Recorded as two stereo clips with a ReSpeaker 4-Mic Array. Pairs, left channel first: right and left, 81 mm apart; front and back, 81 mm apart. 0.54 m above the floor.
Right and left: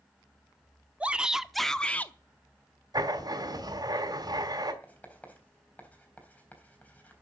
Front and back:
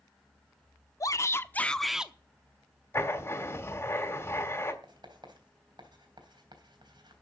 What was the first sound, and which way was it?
A shout, 20° left.